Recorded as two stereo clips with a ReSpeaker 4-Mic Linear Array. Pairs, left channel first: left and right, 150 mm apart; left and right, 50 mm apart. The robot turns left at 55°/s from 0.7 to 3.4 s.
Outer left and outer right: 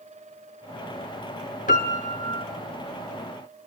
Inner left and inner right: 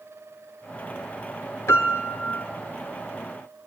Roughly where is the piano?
Left.